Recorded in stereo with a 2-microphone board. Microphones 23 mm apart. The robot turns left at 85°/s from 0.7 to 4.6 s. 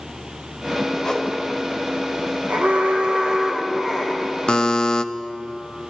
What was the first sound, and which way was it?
A whoosh, 40° left (ahead or behind).